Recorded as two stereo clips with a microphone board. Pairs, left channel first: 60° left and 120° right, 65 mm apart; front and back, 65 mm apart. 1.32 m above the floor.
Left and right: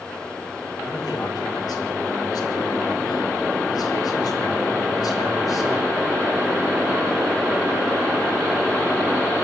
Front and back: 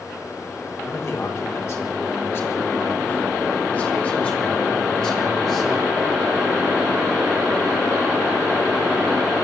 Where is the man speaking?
40° left, 5.5 m; by 6.1 s 90° left, 6 m.